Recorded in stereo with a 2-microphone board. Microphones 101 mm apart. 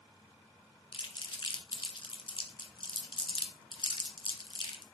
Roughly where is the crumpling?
Left.